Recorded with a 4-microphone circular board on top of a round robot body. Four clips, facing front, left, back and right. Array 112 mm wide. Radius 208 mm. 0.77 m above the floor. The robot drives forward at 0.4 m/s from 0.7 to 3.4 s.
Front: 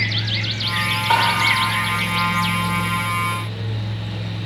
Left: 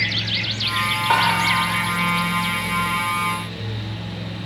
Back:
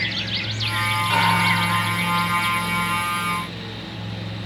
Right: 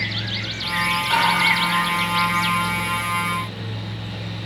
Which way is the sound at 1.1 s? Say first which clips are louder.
Left 2 dB, front 5 dB; 55° left.